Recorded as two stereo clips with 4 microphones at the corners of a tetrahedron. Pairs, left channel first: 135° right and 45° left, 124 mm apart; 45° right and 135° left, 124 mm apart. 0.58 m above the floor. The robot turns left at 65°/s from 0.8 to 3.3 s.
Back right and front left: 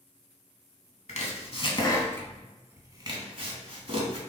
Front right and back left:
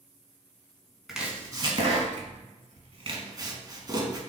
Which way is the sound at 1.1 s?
135° right.